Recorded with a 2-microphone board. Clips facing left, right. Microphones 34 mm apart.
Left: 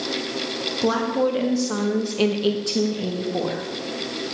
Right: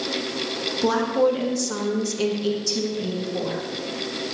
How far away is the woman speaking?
About 1.5 m.